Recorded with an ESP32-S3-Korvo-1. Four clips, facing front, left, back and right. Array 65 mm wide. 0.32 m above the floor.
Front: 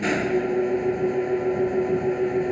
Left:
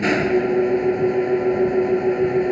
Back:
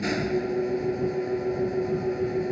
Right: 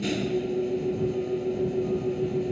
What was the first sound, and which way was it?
An engine running, 70° left.